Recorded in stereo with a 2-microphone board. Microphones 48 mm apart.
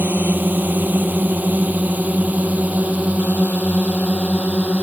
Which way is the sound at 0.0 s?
45° right (ahead or behind).